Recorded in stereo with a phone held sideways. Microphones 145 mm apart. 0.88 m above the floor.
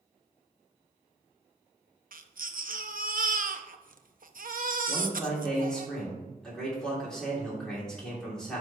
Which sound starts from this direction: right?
A baby crying, at 2.1 s.